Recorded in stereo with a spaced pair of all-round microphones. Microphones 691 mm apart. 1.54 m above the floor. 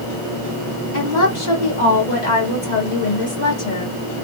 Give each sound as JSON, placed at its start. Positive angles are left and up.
{"t": 0.9, "sound": "a woman speaking", "side_deg": 80, "distance_m": 2.0}